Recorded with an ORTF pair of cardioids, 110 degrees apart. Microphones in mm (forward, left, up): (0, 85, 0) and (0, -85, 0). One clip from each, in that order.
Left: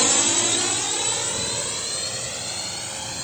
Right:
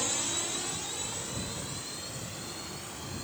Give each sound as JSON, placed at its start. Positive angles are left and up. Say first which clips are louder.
{"t": 0.0, "sound": "a drone", "louder": "left 12 dB", "azimuth_deg": 65}